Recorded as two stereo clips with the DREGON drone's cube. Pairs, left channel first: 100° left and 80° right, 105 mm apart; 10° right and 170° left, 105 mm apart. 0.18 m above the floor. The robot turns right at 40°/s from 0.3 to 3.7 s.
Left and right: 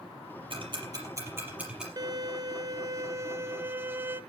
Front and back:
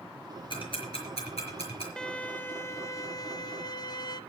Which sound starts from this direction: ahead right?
Ticking, at 0.5 s.